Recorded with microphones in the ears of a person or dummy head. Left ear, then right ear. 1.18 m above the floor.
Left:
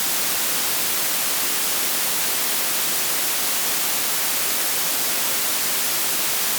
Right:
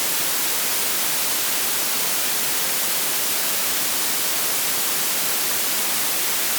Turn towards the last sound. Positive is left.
No sound to turn to.